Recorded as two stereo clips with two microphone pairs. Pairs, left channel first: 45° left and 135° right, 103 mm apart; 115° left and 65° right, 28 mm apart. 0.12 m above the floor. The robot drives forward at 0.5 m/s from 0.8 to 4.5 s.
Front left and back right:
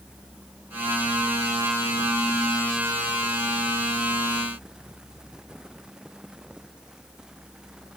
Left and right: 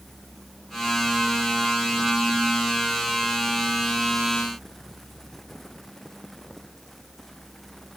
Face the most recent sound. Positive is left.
No sound to turn to.